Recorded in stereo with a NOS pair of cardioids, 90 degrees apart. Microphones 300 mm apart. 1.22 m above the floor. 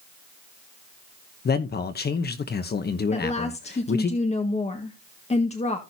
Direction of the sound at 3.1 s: 25° left.